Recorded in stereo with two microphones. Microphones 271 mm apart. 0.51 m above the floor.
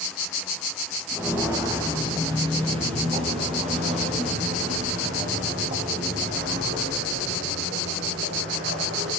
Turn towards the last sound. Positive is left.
turn(degrees=-45)  # may be behind; listen again after turning